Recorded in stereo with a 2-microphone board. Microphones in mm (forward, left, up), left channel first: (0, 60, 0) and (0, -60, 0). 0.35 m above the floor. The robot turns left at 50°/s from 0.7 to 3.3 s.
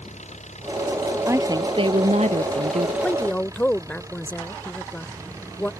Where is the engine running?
105° left; by 5.8 s 25° right.